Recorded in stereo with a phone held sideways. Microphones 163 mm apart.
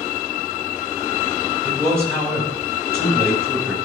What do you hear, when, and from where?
1.6 s a man speaking: 15° right (ahead or behind), 4.5 m